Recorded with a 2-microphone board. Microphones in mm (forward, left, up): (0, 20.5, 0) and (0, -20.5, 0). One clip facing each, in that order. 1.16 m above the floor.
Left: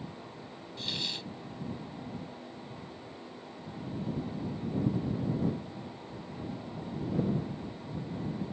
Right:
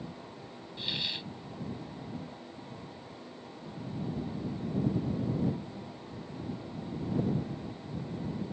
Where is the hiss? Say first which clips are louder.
Right 1 dB; 15° right (ahead or behind).